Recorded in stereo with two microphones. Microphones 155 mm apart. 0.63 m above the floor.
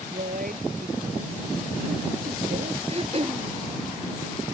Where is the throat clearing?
40° right (ahead or behind).